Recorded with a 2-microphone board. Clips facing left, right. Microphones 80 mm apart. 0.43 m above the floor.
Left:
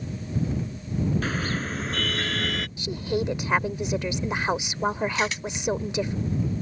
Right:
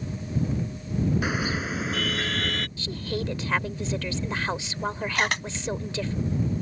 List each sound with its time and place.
1.2 s a car horn: 15° right (ahead or behind); by 2.7 s 5° left (ahead or behind)
2.8 s a woman speaking: 20° left (ahead or behind)
5.2 s a camera shutter: 60° right (ahead or behind)